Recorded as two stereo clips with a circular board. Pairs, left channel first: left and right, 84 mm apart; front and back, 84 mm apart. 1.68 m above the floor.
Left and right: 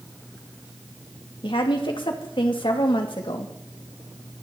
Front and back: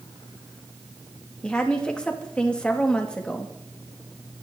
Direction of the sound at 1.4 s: 80° left.